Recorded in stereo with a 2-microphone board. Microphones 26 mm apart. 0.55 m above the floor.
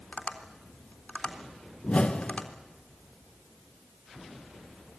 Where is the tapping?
55° left (ahead or behind), 3.5 m.